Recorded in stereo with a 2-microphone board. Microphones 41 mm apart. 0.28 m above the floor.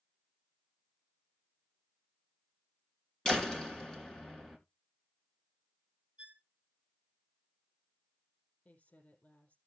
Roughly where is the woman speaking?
Left.